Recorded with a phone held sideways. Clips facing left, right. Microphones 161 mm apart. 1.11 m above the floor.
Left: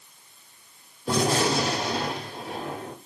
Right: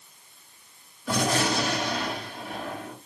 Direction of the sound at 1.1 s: 35° left (ahead or behind).